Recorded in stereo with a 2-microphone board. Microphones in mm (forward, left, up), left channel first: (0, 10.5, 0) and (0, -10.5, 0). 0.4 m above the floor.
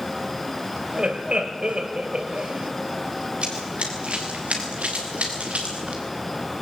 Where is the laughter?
55° right (ahead or behind), 2.5 m.